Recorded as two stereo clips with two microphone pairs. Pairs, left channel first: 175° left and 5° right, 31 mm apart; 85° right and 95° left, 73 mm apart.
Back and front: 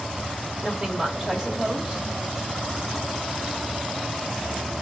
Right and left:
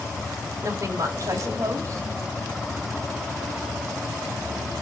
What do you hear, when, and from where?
0.6 s a woman speaking: 60° left, 1.9 m